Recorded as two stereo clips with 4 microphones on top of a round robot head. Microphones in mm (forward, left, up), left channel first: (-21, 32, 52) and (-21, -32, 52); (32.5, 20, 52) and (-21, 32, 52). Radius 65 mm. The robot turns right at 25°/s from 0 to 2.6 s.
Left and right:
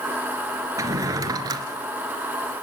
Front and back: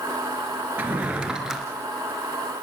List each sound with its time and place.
0.8 s a drawer: 125° right, 3 m; by 1.6 s 105° right, 3 m